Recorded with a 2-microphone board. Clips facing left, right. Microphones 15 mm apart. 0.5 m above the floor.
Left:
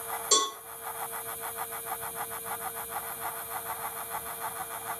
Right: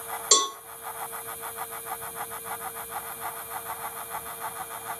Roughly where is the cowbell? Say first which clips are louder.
Right 3 dB; right.